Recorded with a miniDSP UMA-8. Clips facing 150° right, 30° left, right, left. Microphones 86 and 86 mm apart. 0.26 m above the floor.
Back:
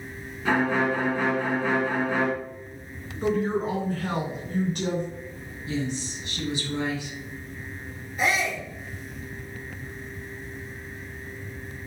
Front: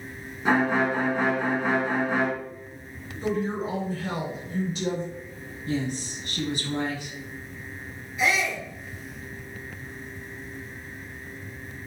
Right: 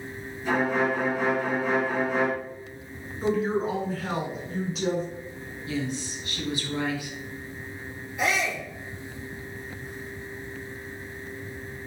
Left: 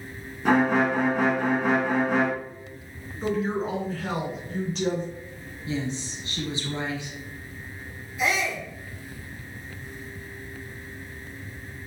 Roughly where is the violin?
Left.